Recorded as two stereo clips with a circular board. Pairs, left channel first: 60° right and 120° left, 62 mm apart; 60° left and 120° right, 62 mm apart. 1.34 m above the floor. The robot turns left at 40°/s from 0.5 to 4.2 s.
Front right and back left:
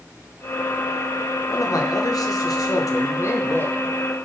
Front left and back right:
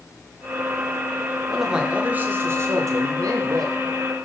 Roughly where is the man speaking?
Ahead right.